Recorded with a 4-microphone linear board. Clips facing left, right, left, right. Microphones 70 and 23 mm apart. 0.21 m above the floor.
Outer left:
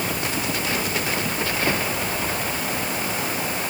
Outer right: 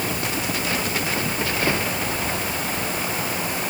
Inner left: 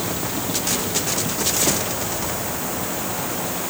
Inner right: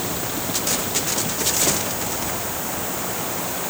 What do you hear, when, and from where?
Only background noise.